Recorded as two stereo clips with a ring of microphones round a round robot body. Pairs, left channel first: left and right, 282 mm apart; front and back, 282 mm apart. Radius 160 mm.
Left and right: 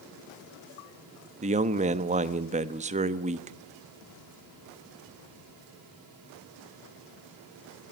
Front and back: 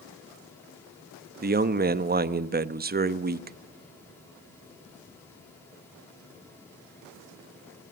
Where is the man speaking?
140° right, 0.9 m.